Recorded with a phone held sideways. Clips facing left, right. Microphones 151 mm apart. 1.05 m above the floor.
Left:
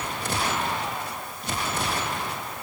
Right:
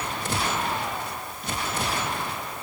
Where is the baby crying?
No baby crying in this recording.